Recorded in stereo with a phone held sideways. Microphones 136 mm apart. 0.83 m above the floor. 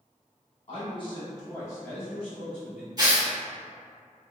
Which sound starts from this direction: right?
Tearing paper, at 3.0 s.